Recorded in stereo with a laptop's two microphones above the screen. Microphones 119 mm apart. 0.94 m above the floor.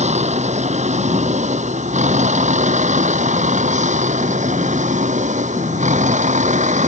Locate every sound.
0.0 s a vehicle: 70° right (ahead or behind); by 6.9 s 85° right